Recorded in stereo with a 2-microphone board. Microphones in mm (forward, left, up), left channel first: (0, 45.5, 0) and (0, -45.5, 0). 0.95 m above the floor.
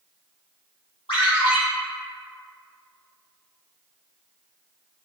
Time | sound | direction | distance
1.1 | a ringtone | 80° left | 1.5 m